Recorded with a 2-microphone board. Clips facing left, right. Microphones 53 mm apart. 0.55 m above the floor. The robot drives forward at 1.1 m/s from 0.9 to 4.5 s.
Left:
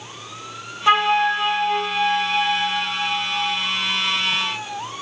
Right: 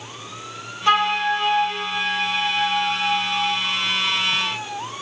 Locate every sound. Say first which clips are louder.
0.9 s a flute: left 2 dB; 15° left (ahead or behind), 0.7 m; by 3.6 s 5° left (ahead or behind), 3 m